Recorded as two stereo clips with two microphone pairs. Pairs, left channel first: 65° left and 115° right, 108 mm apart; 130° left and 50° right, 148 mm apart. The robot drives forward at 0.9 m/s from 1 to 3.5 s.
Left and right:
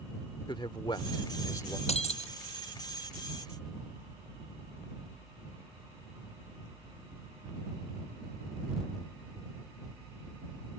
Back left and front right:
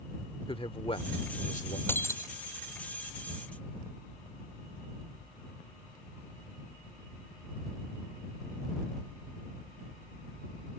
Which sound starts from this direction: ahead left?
Breaking glass, at 1.9 s.